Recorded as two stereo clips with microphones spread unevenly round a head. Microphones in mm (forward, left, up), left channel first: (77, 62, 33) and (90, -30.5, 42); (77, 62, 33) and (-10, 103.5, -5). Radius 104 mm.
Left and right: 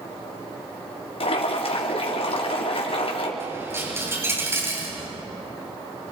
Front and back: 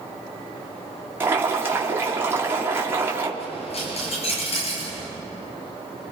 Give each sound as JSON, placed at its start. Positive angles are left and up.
{"t": 1.2, "sound": "boiling", "azimuth_deg": 90, "distance_m": 4.0}
{"t": 3.4, "sound": "a dropped coin", "azimuth_deg": -20, "distance_m": 9.0}